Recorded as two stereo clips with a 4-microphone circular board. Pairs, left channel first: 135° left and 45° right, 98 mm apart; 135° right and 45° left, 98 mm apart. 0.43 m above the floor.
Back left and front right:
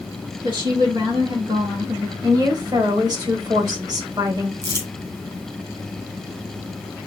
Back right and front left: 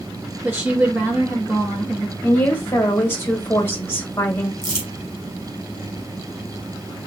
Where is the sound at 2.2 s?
70° right, 1.7 m.